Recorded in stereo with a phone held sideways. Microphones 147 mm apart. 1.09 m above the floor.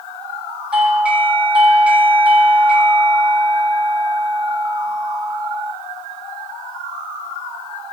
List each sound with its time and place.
0.7 s a doorbell: 10° right (ahead or behind), 4 m